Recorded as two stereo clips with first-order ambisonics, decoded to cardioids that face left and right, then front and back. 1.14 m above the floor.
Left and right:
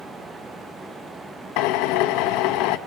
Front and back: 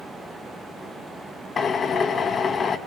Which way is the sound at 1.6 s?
70° left.